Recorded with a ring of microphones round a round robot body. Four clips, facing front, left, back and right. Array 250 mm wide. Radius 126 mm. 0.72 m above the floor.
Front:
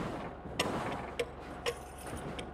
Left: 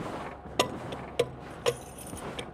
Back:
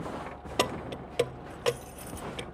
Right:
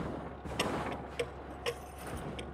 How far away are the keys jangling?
About 0.6 m.